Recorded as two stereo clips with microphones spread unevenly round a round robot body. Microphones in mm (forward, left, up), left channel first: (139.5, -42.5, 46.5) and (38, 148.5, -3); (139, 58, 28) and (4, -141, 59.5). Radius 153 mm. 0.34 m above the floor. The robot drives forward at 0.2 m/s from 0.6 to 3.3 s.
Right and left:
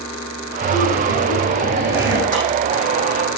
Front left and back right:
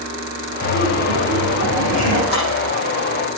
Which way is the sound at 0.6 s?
85° left.